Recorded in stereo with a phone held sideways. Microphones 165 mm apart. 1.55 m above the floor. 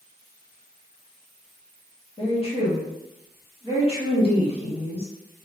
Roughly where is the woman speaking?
Left.